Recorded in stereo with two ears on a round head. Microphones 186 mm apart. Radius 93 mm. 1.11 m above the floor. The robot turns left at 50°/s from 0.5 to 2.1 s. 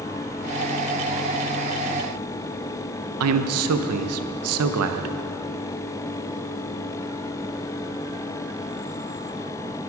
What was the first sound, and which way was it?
A man speaking, 80° right.